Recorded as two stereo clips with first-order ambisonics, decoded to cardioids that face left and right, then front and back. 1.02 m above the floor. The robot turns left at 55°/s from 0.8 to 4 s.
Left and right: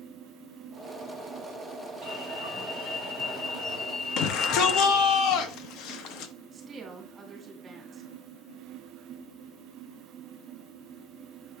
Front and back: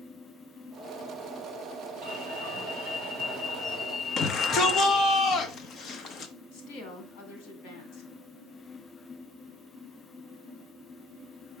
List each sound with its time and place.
2.0 s an alarm: 165° right, 5.5 m; by 5.2 s 85° left, 5.5 m
4.2 s a shout: 55° left, 0.9 m
6.5 s a woman speaking: 20° right, 2.5 m